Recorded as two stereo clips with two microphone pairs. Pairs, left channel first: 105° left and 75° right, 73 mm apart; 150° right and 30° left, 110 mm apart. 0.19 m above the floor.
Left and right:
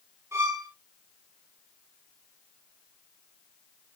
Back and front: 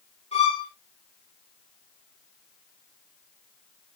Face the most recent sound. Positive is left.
turn(degrees=-125)